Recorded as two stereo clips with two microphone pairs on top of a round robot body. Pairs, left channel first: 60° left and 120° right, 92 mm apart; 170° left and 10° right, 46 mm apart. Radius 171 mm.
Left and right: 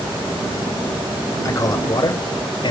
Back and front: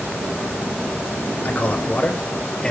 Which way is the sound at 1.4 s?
115° left.